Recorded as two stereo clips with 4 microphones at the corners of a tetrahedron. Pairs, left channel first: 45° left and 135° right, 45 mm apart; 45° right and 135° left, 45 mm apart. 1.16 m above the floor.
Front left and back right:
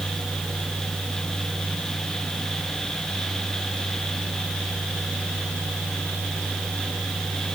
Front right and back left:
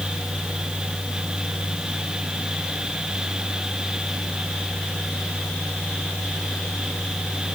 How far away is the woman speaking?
I don't hear a woman speaking.